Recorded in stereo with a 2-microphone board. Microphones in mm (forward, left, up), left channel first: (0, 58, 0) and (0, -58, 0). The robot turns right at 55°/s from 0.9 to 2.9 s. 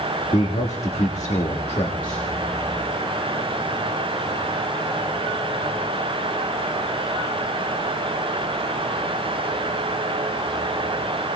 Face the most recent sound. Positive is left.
turn(degrees=-175)